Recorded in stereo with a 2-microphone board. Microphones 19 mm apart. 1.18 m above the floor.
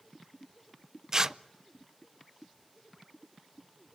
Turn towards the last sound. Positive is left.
turn(degrees=-30)  # may be behind; listen again after turning